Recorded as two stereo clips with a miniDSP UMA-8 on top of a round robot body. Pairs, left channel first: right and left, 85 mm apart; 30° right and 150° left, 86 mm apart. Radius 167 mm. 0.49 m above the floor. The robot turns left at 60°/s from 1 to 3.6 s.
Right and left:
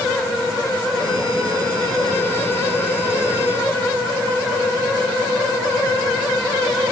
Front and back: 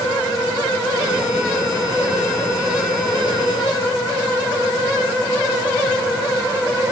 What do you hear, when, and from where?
Only background noise.